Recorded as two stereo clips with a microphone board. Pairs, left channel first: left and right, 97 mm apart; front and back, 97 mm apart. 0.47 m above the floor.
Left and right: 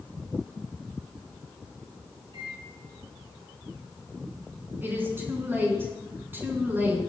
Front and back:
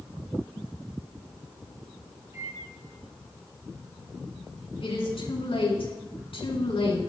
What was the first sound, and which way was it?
A microwave, 120° right.